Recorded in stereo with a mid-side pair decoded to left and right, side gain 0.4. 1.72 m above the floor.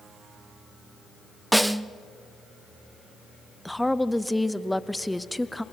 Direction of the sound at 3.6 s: 5° left.